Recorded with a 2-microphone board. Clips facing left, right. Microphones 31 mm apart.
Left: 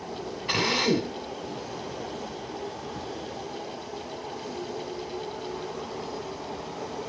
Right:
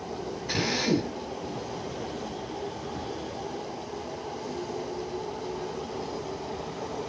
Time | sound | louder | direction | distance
0.5 | a drill | left 3 dB | 55° left (ahead or behind) | 2.5 m